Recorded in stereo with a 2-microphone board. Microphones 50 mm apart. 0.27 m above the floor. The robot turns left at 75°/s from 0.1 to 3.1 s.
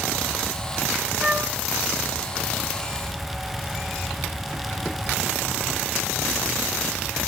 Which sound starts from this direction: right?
A flute, at 1.2 s.